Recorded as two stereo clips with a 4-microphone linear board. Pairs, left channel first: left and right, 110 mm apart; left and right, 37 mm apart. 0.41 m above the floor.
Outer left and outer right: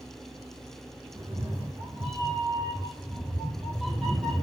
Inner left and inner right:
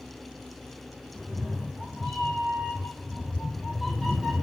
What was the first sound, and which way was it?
A cat meowing, 25° right (ahead or behind).